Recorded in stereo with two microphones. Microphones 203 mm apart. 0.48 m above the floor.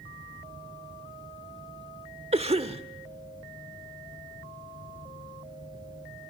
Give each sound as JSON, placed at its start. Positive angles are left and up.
{"t": 2.3, "sound": "a cough", "side_deg": -30, "distance_m": 1.2}